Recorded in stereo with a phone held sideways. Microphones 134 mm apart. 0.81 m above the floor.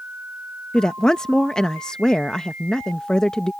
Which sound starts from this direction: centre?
A woman speaking, at 0.7 s.